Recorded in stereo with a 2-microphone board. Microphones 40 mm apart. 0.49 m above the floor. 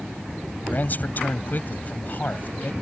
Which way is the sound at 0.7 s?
45° left (ahead or behind).